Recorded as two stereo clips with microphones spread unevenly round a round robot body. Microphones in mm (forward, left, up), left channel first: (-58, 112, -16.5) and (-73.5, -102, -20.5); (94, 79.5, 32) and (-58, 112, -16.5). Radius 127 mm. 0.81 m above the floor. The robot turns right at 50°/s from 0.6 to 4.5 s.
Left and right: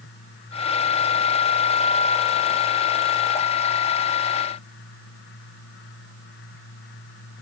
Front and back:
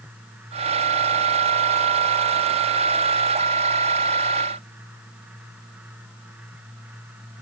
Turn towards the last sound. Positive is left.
No sound to turn to.